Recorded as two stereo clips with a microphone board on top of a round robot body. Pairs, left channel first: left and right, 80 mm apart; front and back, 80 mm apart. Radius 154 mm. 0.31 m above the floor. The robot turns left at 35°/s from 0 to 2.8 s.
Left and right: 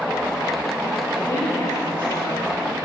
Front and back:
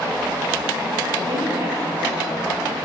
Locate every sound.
1.2 s a woman speaking: 160° left, 9.5 m; by 2.9 s 100° left, 9.5 m